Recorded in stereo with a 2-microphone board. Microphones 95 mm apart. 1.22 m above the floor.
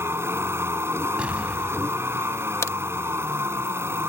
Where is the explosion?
15° right (ahead or behind).